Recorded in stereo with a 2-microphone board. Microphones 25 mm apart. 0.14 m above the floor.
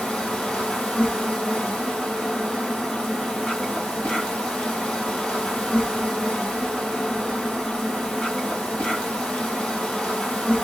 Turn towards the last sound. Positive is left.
turn(degrees=35)  # may be behind; listen again after turning